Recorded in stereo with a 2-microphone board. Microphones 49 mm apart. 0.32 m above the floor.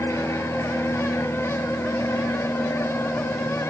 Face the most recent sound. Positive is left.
turn(degrees=70)  # may be behind; listen again after turning